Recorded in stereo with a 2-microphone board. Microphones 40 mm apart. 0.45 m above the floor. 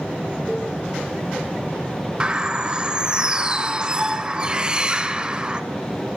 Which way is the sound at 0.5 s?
5° right (ahead or behind).